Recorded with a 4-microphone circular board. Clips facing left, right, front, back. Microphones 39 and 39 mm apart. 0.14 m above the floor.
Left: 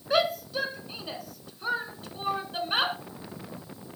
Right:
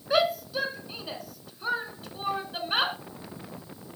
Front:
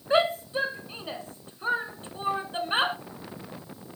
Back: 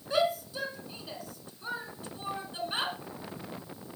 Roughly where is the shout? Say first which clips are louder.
Right 1 dB, front 5 dB; ahead.